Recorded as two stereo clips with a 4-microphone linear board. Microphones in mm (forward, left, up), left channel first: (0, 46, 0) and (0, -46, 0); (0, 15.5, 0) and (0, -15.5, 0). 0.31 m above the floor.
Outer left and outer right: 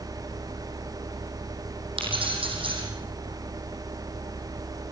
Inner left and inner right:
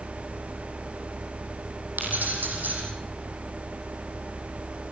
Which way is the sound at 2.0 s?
70° right (ahead or behind).